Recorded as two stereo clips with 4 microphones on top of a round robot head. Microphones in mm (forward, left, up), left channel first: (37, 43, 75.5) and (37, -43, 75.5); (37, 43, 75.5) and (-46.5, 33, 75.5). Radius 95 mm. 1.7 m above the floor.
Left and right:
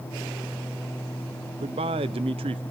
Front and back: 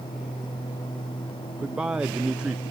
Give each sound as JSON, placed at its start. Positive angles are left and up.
{"t": 1.6, "sound": "a man speaking", "azimuth_deg": -90, "distance_m": 0.6}